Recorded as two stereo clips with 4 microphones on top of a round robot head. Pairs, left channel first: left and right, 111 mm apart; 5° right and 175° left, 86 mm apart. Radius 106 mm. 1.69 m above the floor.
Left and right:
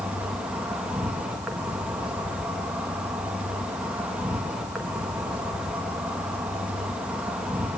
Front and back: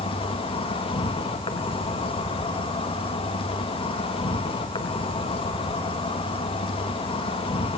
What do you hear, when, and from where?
0.0 s an insect: 10° right, 3.5 m